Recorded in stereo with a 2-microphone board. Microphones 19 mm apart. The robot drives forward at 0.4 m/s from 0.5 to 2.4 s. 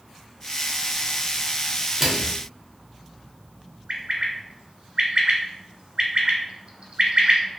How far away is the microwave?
About 0.6 m.